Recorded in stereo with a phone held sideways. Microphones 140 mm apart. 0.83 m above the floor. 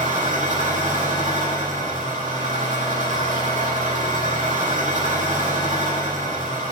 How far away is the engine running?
About 7 m.